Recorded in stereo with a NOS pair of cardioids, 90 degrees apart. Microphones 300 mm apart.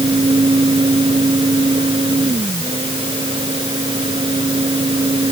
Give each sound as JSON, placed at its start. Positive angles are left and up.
{"t": 0.0, "sound": "a fan", "azimuth_deg": -15}